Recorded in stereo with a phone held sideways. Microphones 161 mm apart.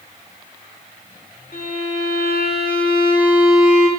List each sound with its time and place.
1.5 s a violin: 65° left (ahead or behind), 0.7 m